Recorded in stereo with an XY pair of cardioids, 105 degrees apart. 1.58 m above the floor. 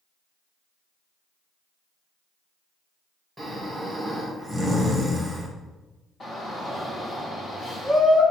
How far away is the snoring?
About 1.6 m.